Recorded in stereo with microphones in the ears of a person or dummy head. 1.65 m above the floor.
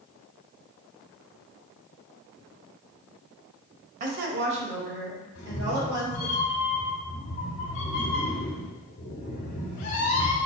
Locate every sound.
4.0 s a woman speaking: 40° right (ahead or behind), 0.9 m; by 6.3 s 90° right, 4 m
5.3 s a cat meowing: 40° left (ahead or behind), 1.6 m